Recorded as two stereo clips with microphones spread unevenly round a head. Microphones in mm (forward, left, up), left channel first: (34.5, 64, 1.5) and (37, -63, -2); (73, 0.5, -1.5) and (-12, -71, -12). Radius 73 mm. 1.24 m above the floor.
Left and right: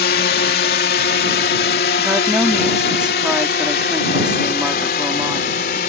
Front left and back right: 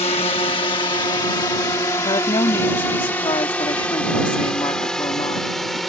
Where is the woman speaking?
5° right.